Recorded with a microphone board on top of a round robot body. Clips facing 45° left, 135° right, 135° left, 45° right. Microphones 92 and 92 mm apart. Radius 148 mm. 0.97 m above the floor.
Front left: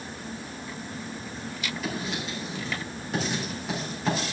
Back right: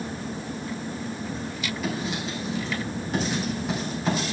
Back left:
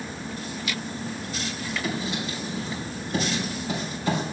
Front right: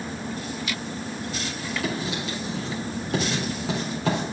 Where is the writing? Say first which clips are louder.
Back right 3 dB, front right 1 dB; 45° right, 4 m.